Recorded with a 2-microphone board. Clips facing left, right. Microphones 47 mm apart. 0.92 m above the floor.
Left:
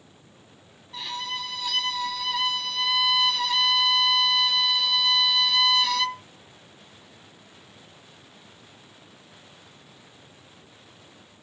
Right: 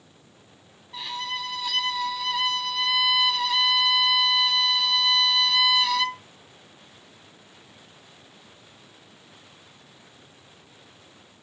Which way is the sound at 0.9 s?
5° right (ahead or behind).